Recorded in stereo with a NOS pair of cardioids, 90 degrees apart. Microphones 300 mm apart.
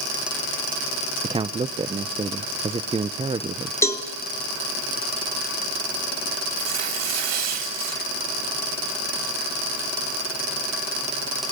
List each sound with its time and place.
1.2 s a man speaking: 20° right, 0.7 m
3.8 s a cowbell: 10° left, 2 m
6.6 s tearing paper: 60° right, 3.5 m